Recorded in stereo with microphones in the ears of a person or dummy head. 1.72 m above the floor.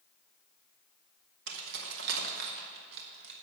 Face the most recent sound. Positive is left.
turn(degrees=-65)  # may be behind; listen again after turning